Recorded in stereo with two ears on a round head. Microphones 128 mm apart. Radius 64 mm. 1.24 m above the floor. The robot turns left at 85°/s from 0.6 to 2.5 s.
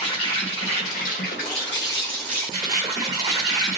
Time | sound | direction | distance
0.0 | an insect | 135° left | 1.1 m